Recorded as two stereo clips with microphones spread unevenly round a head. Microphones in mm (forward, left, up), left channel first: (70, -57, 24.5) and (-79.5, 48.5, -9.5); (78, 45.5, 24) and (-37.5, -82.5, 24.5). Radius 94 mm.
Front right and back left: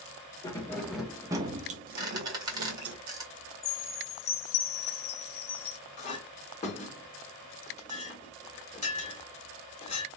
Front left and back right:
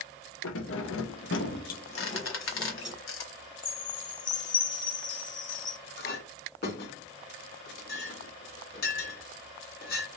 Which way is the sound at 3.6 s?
10° left.